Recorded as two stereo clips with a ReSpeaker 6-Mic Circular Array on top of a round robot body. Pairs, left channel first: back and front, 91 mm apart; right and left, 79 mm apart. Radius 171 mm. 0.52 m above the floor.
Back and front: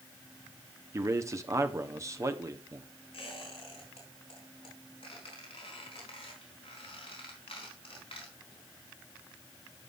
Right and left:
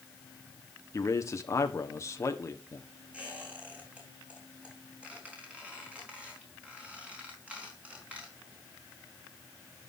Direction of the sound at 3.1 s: 165° left.